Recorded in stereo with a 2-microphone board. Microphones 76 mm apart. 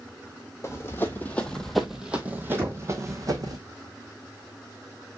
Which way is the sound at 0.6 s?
40° left (ahead or behind).